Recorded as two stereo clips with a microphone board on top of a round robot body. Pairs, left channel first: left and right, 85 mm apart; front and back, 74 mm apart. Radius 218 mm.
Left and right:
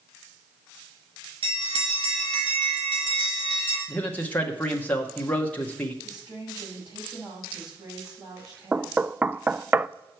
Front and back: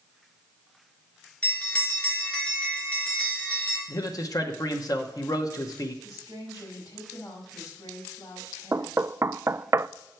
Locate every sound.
1.4 s a bell: 75° right, 3 m
3.9 s a man speaking: 20° left, 1.2 m
6.0 s a woman speaking: 45° right, 5 m
8.7 s knocking: 150° right, 0.5 m